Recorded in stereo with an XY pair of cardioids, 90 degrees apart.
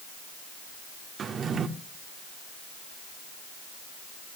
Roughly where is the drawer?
Ahead right.